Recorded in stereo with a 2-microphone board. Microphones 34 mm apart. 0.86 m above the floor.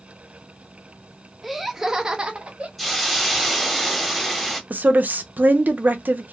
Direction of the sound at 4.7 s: 60° right (ahead or behind).